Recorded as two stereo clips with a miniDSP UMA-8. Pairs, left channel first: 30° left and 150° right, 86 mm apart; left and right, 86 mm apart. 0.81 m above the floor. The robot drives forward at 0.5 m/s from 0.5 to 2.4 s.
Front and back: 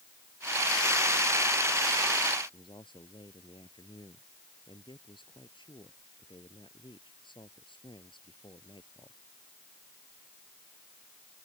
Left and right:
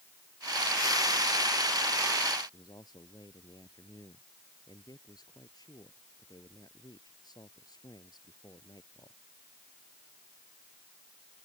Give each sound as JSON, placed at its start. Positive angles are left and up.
{"t": 2.5, "sound": "a man speaking", "azimuth_deg": 50}